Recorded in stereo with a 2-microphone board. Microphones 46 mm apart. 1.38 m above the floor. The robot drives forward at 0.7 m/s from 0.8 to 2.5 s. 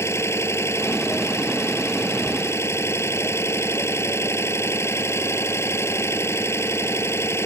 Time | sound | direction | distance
0.0 | an engine running | 75° left (ahead or behind) | ?